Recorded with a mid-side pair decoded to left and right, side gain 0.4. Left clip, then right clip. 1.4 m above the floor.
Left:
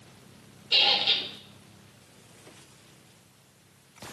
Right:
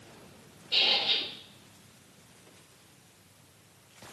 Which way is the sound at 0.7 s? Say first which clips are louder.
Left 3 dB; 65° left.